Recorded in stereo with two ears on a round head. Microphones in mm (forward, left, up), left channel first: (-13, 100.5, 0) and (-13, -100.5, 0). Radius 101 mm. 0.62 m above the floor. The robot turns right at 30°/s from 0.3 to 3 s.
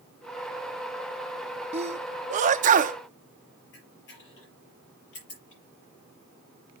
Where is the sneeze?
30° right (ahead or behind), 0.6 m; by 3.0 s 35° right (ahead or behind), 0.6 m.